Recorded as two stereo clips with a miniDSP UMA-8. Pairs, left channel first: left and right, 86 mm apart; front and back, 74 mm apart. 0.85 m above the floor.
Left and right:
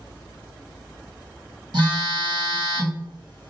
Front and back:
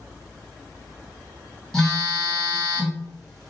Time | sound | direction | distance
1.7 | a phone buzzing | 85° right | 1.6 m